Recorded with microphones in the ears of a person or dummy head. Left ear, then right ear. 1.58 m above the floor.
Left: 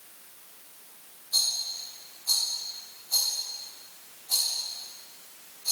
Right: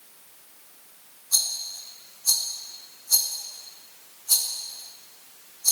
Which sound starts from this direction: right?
A rattle, at 1.3 s.